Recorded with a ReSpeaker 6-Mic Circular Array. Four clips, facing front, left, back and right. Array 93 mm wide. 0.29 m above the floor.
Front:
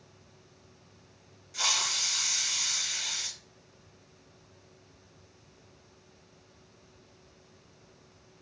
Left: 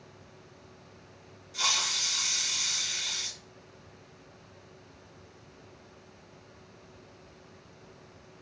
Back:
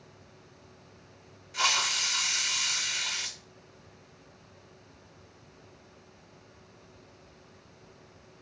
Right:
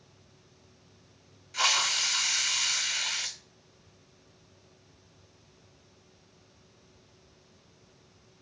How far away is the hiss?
About 0.5 m.